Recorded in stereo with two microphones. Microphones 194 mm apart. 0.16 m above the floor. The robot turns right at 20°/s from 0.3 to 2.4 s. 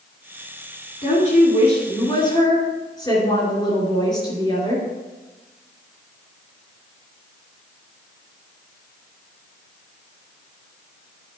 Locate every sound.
1.0 s a woman speaking: 45° left (ahead or behind), 3 m; by 4.8 s 20° left (ahead or behind), 3 m